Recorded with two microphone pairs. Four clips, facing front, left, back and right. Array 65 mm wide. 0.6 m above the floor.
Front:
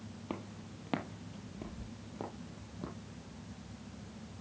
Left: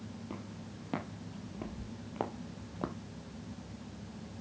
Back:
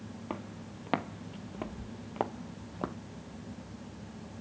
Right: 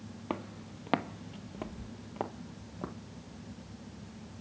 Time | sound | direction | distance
0.3 | footsteps | 110° right | 1.1 m